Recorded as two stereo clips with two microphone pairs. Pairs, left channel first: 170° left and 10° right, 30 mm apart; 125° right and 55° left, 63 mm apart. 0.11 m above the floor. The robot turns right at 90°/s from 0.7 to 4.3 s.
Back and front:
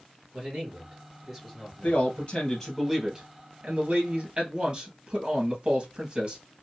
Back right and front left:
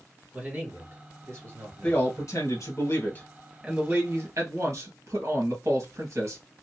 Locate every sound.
0.3 s a man speaking: 5° left, 2.5 m; by 2.0 s 125° left, 2.5 m
1.8 s a man speaking: 170° left, 2 m; by 6.4 s 35° left, 2 m